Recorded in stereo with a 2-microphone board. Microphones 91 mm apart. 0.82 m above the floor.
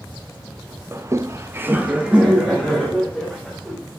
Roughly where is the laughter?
Right.